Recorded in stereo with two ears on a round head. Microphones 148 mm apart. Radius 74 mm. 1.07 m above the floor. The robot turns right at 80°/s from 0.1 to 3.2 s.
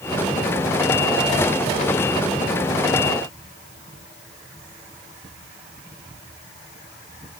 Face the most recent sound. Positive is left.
No sound to turn to.